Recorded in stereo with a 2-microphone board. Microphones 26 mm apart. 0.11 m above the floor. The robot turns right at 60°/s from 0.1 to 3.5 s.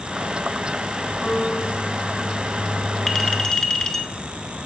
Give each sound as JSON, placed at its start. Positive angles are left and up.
{"t": 1.2, "sound": "a piano", "azimuth_deg": 80, "distance_m": 4.0}
{"t": 3.1, "sound": "a clink", "side_deg": 20, "distance_m": 1.2}